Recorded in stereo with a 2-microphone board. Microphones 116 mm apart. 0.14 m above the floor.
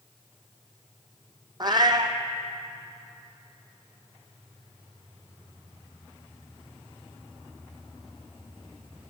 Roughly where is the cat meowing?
Right.